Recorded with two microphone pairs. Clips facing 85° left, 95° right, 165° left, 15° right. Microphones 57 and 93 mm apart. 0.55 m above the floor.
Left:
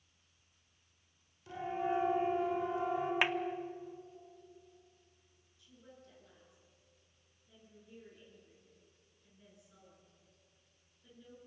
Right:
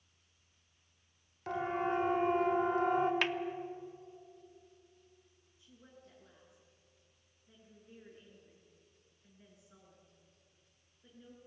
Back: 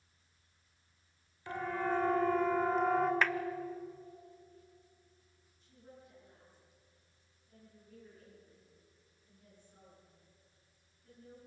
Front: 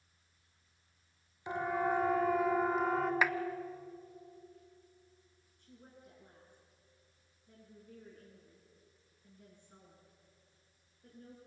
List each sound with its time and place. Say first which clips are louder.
1.5 s a siren: right 2 dB, front 2 dB; 85° right, 3 m; by 3.1 s 105° right, 2.5 m
3.2 s a clap: left 2 dB, even; 45° left, 0.7 m
5.6 s a woman speaking: left 1 dB, back 1 dB; 30° right, 10 m